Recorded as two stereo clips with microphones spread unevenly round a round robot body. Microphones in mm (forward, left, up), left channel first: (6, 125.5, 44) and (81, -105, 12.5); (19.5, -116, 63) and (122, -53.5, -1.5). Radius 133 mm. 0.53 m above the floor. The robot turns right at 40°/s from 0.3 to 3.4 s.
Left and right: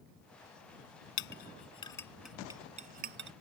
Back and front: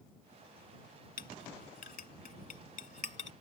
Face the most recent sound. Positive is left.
turn(degrees=-115)